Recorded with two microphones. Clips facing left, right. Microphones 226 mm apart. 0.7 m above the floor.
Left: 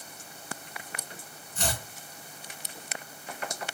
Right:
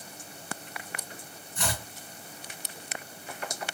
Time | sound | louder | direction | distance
1.6 | chopping | left 1 dB | 45° left (ahead or behind) | 1.9 m